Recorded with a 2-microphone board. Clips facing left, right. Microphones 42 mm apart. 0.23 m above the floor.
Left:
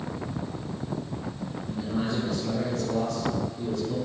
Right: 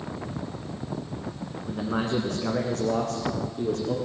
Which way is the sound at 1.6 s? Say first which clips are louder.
Right 2 dB; 60° right (ahead or behind).